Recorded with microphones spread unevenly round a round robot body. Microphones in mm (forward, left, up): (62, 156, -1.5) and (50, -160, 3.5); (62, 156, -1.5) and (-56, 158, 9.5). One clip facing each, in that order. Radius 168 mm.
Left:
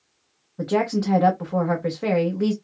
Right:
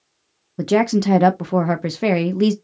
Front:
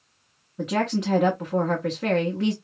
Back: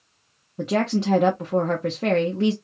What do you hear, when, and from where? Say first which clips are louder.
0.6 s a woman speaking: right 5 dB, back 2 dB; 110° right, 0.5 m